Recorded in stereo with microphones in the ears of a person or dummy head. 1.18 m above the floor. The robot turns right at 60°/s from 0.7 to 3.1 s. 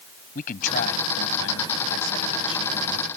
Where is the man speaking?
35° left; by 3.1 s straight behind.